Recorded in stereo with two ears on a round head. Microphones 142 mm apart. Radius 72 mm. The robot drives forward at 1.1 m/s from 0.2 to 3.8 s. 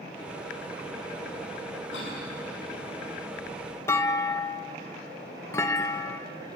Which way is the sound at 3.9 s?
20° left (ahead or behind).